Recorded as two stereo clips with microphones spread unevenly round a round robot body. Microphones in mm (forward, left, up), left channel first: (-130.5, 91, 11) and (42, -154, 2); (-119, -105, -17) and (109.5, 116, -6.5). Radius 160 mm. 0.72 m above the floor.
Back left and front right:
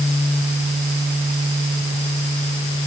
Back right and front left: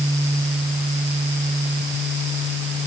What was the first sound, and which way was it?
Only background noise.